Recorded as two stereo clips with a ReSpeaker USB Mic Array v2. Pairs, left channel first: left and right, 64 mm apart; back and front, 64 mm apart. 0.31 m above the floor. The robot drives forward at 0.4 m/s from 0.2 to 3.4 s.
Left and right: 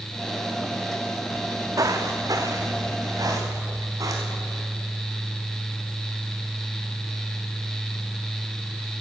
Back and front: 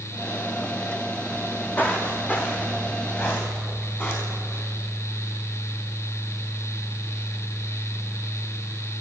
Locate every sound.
1.4 s footsteps: 105° right, 1.4 m; by 4.6 s 120° right, 4.5 m